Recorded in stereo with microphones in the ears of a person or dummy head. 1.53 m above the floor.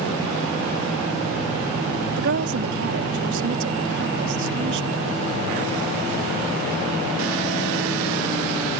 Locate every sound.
2.2 s a woman speaking: 60° right (ahead or behind)